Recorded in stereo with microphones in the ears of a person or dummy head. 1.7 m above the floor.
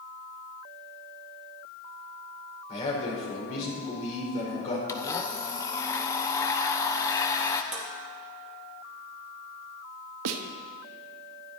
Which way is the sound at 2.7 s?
40° left (ahead or behind).